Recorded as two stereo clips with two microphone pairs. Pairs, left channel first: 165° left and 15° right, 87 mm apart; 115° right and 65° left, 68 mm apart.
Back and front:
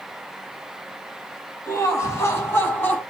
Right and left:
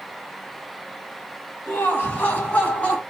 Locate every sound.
1.7 s laughter: 160° right, 1.8 m; by 3.0 s 155° right, 1.4 m